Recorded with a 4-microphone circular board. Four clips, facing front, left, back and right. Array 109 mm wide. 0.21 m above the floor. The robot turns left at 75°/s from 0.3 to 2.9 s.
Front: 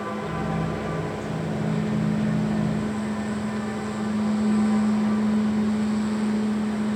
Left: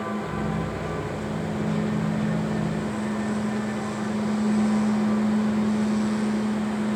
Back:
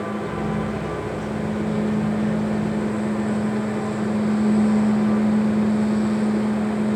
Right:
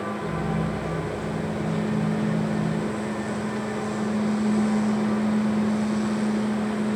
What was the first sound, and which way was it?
Only background noise.